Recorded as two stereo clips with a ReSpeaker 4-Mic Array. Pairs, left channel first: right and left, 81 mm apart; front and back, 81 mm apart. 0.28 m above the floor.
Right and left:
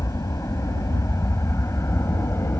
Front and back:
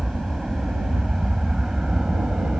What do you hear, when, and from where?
0.0 s an aircraft: 100° right; by 2.6 s 105° right